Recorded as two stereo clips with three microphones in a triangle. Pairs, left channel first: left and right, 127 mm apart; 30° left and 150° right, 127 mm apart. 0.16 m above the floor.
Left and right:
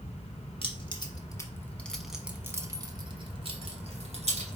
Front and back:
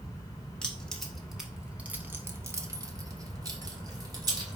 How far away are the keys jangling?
About 1.0 m.